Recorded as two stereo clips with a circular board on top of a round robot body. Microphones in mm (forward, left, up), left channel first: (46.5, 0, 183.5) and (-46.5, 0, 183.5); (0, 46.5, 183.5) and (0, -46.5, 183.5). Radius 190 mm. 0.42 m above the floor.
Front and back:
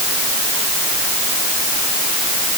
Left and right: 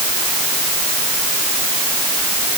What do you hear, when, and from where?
Only background noise.